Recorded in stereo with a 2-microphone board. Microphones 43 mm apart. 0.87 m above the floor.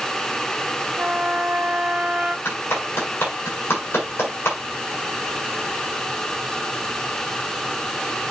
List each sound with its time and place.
1.0 s a trumpet: 40° right (ahead or behind), 2 m
2.5 s a clap: 65° left (ahead or behind), 7.5 m